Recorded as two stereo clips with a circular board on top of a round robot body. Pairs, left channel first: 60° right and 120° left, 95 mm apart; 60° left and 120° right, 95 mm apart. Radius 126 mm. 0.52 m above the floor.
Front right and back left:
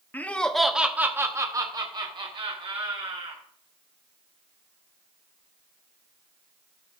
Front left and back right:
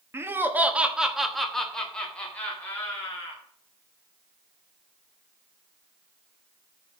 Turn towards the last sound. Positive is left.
turn(degrees=130)